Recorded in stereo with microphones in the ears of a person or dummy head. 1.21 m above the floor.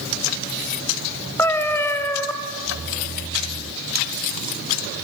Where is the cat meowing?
15° left (ahead or behind), 2 m.